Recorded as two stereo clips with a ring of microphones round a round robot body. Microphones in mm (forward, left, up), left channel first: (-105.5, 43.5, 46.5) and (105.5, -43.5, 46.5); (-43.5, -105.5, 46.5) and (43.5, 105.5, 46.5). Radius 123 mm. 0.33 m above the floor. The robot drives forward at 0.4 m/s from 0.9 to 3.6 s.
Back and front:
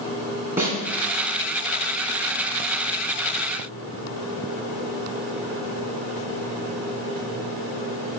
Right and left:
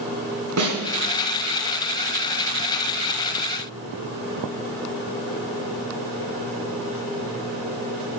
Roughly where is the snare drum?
Ahead left.